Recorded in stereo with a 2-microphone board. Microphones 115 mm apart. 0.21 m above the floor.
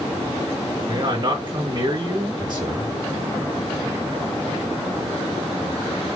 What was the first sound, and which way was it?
A man speaking, 40° right (ahead or behind).